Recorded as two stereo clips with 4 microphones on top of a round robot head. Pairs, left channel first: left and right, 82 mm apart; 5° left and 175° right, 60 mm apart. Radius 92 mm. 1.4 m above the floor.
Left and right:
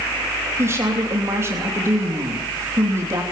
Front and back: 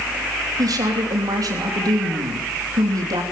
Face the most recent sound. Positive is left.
turn(degrees=-150)